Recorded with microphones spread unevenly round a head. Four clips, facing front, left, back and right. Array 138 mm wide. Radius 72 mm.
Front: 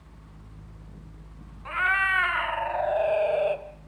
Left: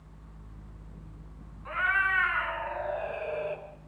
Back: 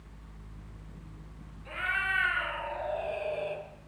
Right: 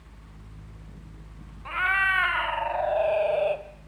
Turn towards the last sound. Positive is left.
turn(degrees=-50)